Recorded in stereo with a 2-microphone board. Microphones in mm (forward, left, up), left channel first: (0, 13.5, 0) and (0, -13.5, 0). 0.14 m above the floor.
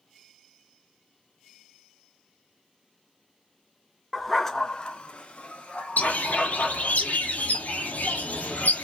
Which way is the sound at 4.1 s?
Centre (ahead or behind).